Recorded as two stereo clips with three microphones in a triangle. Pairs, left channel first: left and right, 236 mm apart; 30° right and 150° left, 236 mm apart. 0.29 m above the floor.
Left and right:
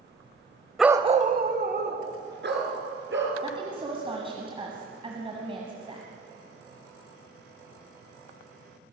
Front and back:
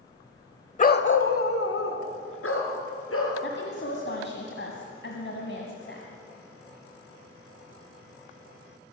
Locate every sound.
0.8 s a dog barking: straight ahead, 0.5 m; by 3.3 s 50° right, 3 m
3.4 s a woman speaking: 25° right, 1.6 m